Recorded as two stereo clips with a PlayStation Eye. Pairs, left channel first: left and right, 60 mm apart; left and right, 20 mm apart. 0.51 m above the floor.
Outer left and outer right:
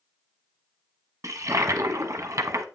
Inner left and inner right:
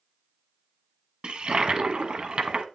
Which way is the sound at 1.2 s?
60° right (ahead or behind).